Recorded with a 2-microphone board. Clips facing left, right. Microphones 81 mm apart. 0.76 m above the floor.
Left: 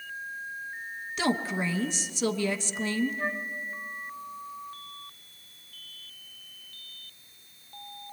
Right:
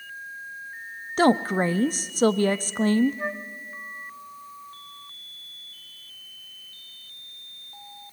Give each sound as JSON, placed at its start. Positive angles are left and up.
{"t": 1.2, "sound": "a woman speaking", "side_deg": -45, "distance_m": 0.6}
{"t": 3.2, "sound": "a flute", "side_deg": -15, "distance_m": 0.9}